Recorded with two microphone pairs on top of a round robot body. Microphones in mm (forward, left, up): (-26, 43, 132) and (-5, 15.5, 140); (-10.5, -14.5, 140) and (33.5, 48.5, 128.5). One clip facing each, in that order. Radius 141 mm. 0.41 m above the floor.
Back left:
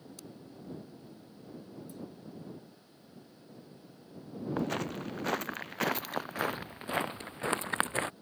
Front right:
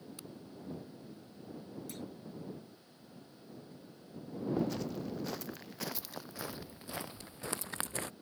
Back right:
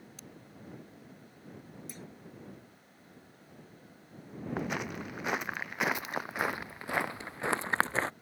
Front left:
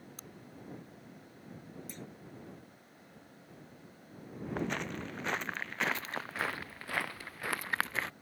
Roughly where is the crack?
Ahead.